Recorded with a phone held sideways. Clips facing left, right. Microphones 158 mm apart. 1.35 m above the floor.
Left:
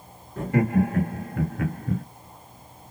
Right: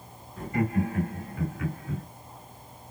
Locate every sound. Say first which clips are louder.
0.4 s laughter: left 5 dB; 85° left, 3 m; by 2.0 s 55° left (ahead or behind), 1.9 m